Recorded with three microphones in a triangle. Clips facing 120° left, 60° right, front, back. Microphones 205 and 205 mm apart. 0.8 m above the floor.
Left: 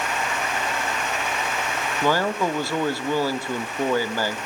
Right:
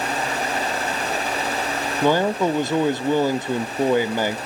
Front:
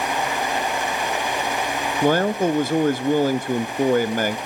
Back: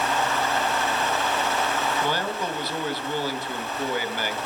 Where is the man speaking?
5° left, 0.7 m.